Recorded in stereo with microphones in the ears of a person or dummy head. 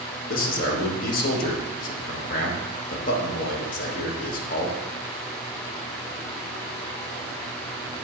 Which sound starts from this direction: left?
A man speaking, at 0.3 s.